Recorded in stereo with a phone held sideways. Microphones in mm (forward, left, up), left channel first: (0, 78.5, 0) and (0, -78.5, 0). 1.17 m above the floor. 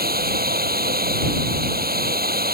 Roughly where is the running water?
Right.